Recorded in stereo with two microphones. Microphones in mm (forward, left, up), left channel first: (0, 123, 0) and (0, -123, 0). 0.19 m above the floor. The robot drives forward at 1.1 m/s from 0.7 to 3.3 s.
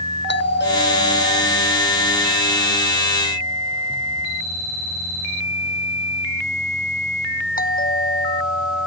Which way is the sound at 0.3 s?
45° left (ahead or behind).